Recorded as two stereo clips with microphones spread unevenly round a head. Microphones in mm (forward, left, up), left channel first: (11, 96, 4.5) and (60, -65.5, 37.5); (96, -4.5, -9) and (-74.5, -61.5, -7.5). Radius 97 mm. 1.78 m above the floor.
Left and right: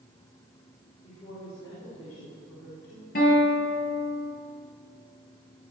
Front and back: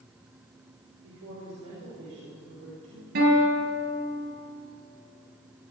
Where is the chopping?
No chopping in this recording.